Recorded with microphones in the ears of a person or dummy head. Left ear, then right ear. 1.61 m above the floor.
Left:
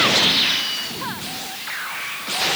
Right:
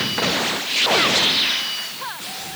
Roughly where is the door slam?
No door slam in this recording.